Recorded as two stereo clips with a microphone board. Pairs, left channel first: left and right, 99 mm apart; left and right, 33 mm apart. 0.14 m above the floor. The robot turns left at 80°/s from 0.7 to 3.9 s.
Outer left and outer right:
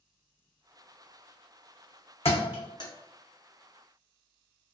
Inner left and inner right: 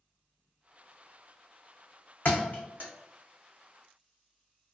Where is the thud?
85° left, 0.7 m; by 2.9 s 40° left (ahead or behind), 0.7 m.